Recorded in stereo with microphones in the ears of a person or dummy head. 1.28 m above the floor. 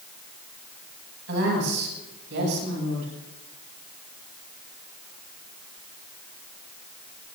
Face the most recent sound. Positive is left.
turn(degrees=-65)  # may be behind; listen again after turning